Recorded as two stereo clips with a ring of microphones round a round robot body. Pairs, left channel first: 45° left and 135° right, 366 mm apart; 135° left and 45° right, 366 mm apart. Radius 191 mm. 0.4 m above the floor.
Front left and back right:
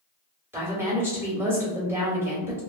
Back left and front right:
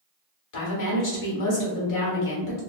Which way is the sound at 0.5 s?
145° left.